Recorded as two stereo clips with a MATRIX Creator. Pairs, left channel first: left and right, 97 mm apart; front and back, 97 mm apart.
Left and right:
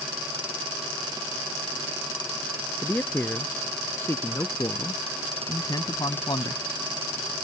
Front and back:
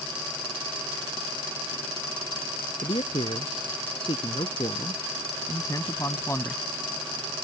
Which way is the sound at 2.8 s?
15° left.